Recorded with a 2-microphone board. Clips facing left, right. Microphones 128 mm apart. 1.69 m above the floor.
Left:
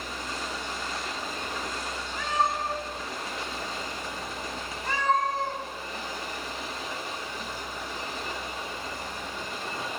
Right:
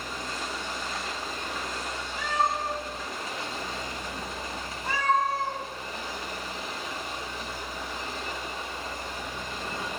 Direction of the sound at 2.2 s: 10° right (ahead or behind).